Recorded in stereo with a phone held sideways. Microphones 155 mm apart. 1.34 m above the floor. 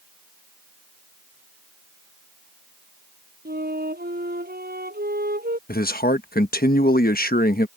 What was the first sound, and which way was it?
A flute, 85° right.